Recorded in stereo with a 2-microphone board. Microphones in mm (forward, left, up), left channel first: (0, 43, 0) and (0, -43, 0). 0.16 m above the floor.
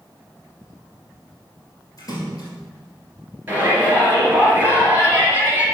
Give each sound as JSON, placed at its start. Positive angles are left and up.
{"t": 2.0, "sound": "a splash", "side_deg": 45, "distance_m": 2.5}
{"t": 3.5, "sound": "a shout", "side_deg": -20, "distance_m": 3.0}